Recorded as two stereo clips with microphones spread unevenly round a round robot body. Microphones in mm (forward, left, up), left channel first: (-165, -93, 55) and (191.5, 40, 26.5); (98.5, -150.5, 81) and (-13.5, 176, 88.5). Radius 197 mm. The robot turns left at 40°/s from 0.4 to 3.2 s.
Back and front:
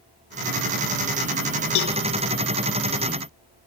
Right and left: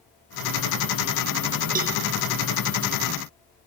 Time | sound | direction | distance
1.8 | a cowbell | 170° left | 0.6 m